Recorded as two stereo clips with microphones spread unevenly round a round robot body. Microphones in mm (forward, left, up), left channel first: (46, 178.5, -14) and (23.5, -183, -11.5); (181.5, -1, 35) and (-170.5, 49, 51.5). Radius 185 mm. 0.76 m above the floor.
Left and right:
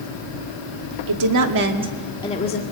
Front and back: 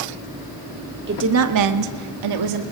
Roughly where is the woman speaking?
Behind right.